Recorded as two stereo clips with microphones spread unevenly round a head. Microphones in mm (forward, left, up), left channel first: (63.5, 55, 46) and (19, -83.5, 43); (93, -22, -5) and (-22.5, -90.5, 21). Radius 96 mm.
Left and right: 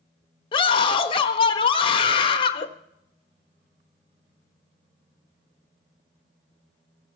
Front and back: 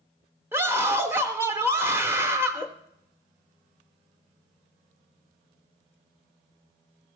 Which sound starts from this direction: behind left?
A scream, at 0.5 s.